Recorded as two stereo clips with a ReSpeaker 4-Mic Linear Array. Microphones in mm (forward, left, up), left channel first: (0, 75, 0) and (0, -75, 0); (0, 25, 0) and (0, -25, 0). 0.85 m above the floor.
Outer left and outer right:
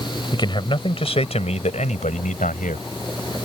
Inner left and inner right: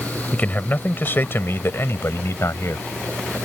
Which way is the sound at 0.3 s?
30° left (ahead or behind).